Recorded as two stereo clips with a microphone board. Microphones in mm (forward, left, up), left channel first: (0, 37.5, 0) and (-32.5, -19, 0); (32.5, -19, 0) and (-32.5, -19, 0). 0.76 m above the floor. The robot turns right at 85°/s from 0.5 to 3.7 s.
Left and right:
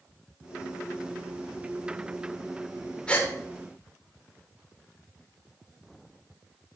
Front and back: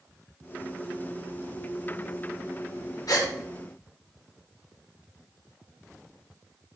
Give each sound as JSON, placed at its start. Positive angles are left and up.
{"t": 3.1, "sound": "a gasp", "azimuth_deg": -10, "distance_m": 1.9}